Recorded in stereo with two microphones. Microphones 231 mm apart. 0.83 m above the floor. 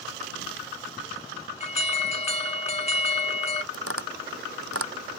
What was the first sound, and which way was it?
An alarm, 30° left (ahead or behind).